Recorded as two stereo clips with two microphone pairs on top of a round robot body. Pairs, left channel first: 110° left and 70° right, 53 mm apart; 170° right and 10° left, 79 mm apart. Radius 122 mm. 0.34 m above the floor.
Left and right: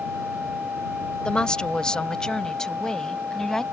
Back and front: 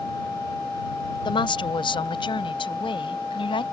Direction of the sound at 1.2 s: Straight behind.